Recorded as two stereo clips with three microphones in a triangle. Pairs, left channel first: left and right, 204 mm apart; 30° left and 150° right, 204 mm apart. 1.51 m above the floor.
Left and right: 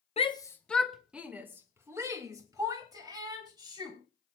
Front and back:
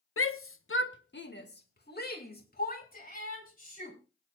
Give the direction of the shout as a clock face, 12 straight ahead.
11 o'clock.